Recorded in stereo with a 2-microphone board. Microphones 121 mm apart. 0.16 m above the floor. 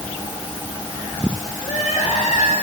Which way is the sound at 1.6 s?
85° left.